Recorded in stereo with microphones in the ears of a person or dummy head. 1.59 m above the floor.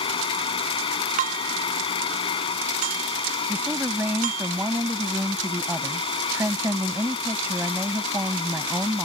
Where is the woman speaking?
10° right (ahead or behind).